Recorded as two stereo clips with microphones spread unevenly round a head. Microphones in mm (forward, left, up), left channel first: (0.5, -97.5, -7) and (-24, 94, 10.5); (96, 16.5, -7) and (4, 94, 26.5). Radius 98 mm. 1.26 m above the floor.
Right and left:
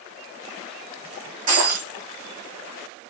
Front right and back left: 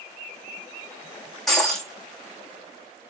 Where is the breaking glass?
50° left, 5 m.